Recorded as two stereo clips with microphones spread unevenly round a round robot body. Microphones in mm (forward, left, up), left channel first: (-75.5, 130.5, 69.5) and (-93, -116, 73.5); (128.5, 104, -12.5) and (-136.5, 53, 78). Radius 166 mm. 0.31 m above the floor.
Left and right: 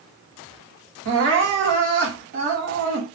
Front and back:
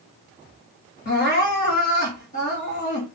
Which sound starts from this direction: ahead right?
Crying, at 1.1 s.